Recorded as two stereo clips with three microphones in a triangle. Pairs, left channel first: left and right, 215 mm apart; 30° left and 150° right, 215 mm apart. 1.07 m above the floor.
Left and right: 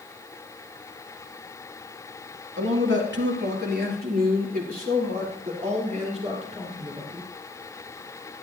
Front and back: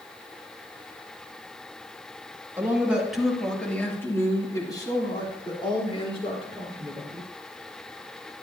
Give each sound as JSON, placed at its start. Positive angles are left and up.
{"t": 2.6, "sound": "a man speaking", "azimuth_deg": -70, "distance_m": 2.0}